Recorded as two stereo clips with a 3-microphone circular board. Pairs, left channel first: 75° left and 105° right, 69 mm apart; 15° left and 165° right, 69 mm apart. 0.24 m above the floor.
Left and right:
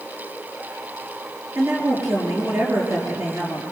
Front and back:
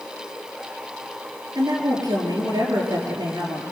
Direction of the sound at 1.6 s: 150° right.